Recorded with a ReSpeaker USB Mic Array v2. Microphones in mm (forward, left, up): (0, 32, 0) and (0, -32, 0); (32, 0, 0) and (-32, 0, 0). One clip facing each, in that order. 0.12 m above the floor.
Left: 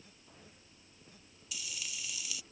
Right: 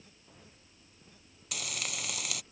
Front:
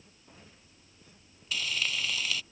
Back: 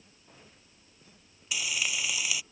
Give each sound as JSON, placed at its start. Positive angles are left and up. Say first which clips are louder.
{"t": 1.5, "sound": "frying", "louder": "right 6 dB, even", "azimuth_deg": -100}